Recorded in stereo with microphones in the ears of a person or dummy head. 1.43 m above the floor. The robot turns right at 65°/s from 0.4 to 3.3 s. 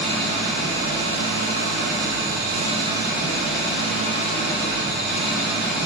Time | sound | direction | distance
0.0 | an engine running | 170° left | 2.5 m